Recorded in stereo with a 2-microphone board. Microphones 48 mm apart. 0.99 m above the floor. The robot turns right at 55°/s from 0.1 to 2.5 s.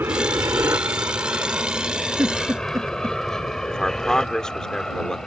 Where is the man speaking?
15° left (ahead or behind).